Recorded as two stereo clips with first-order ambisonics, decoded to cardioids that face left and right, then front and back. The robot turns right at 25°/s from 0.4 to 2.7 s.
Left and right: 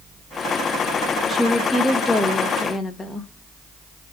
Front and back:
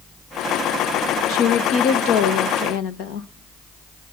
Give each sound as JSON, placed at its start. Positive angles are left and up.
{"t": 1.3, "sound": "a woman speaking", "azimuth_deg": -15, "distance_m": 1.9}